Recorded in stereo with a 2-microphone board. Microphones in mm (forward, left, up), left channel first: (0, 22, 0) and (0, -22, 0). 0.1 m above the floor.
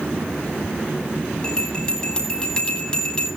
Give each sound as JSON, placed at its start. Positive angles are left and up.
{"t": 1.4, "sound": "a bell", "side_deg": 20, "distance_m": 9.5}